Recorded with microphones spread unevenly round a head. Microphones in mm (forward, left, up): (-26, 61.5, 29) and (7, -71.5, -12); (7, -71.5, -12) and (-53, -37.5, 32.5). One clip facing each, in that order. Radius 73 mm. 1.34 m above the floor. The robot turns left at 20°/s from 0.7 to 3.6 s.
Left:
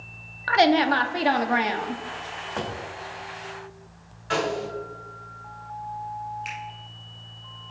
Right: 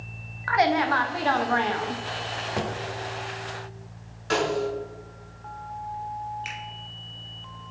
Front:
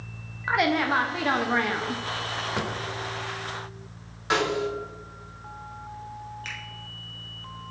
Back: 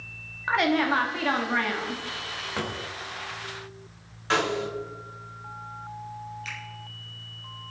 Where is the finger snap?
5° left, 2 m.